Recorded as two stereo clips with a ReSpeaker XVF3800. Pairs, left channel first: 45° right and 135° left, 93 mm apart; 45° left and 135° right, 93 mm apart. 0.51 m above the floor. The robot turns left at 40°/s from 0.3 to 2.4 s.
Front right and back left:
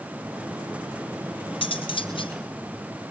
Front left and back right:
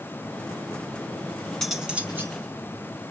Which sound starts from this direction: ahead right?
Cutlery clinking, at 1.6 s.